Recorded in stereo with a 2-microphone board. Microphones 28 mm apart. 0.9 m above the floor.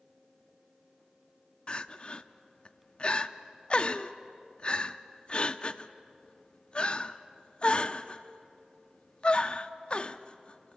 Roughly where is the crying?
Left.